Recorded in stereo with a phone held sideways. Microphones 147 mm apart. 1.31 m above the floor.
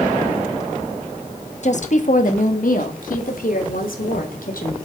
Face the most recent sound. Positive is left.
turn(degrees=75)  # may be behind; listen again after turning